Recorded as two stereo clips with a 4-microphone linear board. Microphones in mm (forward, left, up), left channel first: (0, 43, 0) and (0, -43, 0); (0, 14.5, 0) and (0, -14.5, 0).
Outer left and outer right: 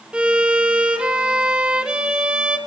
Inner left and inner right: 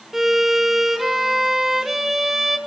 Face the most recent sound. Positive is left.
turn(degrees=-10)  # may be behind; listen again after turning